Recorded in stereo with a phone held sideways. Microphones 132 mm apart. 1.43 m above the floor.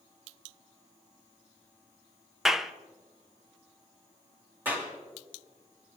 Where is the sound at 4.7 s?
15° right (ahead or behind), 3 m.